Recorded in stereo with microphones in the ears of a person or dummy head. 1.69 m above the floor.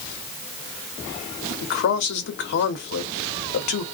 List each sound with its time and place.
1.6 s a man speaking: 55° left (ahead or behind), 0.7 m